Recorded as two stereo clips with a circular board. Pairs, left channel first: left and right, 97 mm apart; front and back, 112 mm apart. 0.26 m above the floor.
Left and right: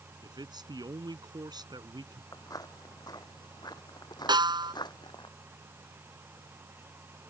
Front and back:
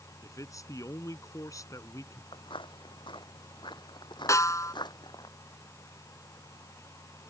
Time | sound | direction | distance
0.2 | a man speaking | 55° right | ?
2.3 | footsteps | 40° left | ?
4.3 | a snare drum | 60° right | ?